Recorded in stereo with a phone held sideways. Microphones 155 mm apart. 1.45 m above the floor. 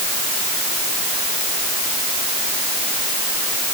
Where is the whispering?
I don't hear whispering.